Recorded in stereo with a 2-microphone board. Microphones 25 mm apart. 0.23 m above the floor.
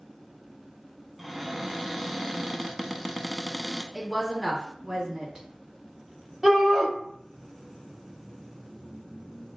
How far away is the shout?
About 1.2 m.